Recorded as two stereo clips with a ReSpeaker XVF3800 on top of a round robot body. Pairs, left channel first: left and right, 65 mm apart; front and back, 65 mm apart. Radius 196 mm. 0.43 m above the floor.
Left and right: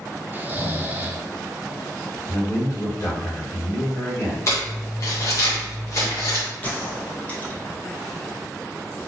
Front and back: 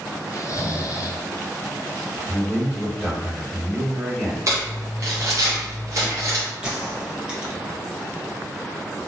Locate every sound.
0.3 s snoring: 30° right, 0.7 m
2.3 s a man speaking: 90° left, 1.8 m
4.5 s crumpling: 135° left, 0.9 m
6.6 s a gunshot: 120° left, 1.3 m